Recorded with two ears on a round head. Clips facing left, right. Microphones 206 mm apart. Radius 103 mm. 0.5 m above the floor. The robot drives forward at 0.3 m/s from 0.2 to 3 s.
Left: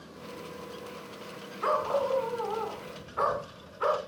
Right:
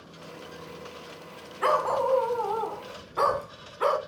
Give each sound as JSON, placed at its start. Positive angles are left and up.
{"t": 1.6, "sound": "a dog barking", "side_deg": -70, "distance_m": 1.6}